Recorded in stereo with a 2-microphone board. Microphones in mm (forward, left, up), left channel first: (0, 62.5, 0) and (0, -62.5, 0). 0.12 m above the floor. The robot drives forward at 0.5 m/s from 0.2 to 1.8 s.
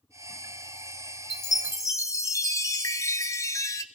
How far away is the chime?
About 0.6 m.